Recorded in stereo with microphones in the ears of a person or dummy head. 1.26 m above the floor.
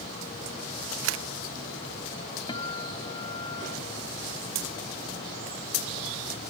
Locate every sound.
1.0 s a camera shutter: 70° right (ahead or behind)
2.5 s a guitar: 25° left (ahead or behind)